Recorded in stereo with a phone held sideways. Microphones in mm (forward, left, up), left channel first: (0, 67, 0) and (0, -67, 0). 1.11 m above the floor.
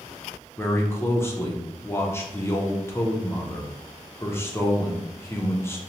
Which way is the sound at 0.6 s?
20° left (ahead or behind).